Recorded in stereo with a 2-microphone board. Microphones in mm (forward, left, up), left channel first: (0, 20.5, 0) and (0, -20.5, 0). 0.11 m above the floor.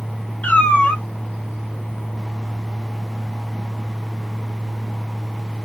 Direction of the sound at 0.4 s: 40° left (ahead or behind).